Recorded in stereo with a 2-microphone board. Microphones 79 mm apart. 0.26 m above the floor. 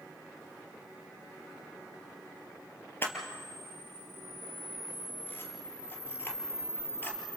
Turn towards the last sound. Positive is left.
turn(degrees=30)  # may be behind; listen again after turning